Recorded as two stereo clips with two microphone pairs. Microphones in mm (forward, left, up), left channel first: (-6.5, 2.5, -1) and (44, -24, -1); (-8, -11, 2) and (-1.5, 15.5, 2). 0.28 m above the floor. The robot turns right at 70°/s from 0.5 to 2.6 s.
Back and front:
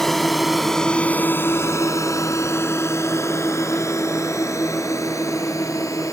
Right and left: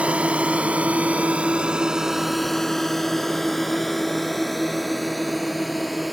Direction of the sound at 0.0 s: 65° left.